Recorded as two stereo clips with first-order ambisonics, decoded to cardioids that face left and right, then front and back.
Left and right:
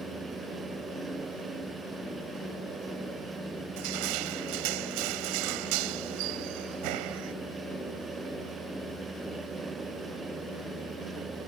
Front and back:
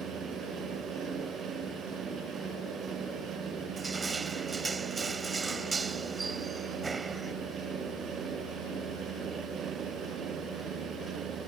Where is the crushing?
105° right.